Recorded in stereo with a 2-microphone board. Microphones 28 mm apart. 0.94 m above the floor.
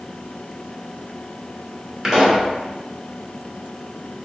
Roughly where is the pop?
Centre.